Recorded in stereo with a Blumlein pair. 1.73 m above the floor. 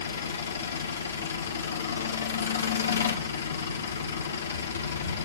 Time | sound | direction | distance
0.0 | an engine running | 70° left | 1.8 m